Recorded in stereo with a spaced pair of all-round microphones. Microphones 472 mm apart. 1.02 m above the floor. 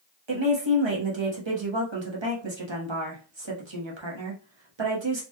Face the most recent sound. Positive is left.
turn(degrees=-70)  # may be behind; listen again after turning